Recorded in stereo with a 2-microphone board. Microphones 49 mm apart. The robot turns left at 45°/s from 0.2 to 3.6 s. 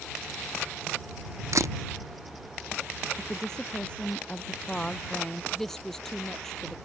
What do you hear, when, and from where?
1.5 s a camera shutter: 65° right (ahead or behind); by 1.8 s 75° right (ahead or behind)
3.2 s a woman speaking: 5° right (ahead or behind); by 5.4 s 15° left (ahead or behind)
5.5 s a woman speaking: 10° left (ahead or behind)